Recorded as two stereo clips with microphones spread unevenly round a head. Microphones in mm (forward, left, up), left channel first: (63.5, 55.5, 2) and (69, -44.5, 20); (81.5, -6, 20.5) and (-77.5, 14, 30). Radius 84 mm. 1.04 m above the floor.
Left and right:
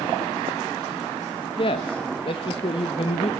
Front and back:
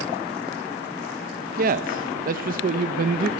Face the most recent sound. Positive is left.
turn(degrees=135)